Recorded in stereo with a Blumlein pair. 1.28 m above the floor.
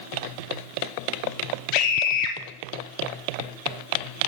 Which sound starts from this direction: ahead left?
A scream, at 1.7 s.